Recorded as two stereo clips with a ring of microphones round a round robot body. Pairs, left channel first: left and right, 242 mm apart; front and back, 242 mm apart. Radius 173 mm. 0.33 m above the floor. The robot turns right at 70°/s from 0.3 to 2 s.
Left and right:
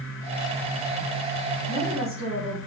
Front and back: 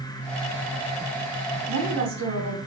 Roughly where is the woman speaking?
Behind.